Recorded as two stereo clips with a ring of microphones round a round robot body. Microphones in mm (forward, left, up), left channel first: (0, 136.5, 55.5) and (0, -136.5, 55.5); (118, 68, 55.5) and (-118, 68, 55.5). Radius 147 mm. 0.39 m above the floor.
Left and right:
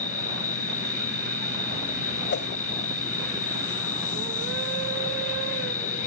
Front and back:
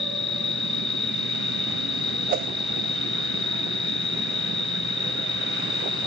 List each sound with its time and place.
0.0 s an insect: 30° left
2.3 s a whoosh: 135° left